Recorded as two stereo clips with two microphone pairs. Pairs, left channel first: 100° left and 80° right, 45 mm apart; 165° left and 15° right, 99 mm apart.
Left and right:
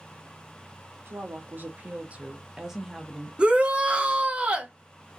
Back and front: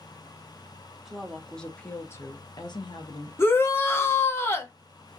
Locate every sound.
1.1 s a woman speaking: 100° right, 1.1 m; by 3.3 s 175° left, 1.0 m
3.4 s a shout: 140° right, 0.8 m